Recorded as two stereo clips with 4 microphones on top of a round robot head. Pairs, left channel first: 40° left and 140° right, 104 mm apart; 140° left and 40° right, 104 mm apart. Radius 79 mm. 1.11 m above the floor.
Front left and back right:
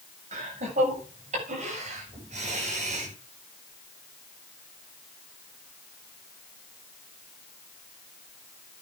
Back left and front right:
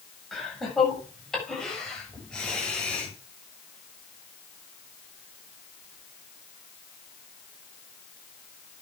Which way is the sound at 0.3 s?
130° right.